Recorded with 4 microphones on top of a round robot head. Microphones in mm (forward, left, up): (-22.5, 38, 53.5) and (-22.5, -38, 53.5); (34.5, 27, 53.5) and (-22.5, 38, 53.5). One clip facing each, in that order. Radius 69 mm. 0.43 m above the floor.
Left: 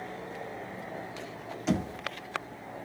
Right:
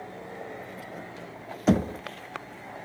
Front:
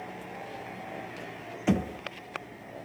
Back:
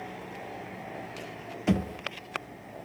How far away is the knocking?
About 0.5 m.